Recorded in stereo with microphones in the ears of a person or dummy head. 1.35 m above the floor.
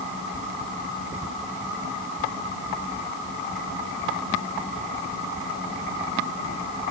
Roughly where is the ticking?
I don't hear ticking.